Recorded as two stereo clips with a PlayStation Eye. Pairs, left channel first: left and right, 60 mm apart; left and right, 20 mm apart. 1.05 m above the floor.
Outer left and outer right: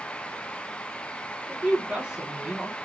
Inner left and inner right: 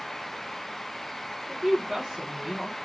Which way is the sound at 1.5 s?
15° right (ahead or behind).